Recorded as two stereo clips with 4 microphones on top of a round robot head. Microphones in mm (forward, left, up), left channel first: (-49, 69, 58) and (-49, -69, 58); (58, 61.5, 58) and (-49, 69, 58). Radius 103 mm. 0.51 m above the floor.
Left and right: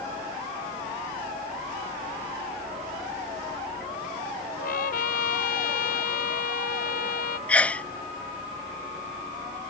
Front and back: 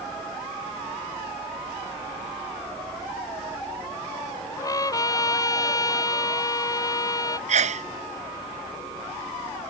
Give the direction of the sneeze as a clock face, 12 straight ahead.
6 o'clock.